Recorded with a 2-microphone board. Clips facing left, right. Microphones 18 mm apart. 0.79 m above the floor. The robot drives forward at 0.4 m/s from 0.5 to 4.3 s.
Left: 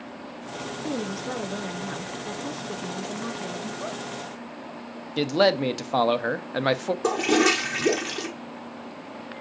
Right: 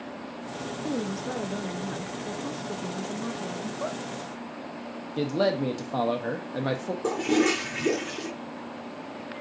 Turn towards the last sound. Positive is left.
turn(degrees=45)  # may be behind; listen again after turning